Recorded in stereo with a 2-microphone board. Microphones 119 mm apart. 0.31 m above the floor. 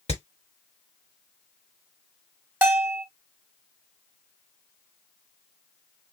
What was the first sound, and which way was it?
Hammering, 65° left (ahead or behind).